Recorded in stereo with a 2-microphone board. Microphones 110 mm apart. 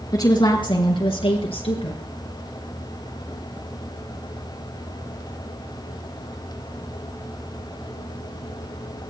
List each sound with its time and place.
0.1 s a woman speaking: 40° left (ahead or behind), 1.9 m; by 2.0 s 65° left (ahead or behind), 3 m